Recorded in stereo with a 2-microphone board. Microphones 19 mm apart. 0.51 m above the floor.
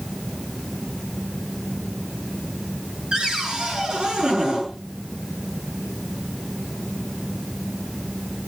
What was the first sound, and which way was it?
A cupboard door, 50° right (ahead or behind).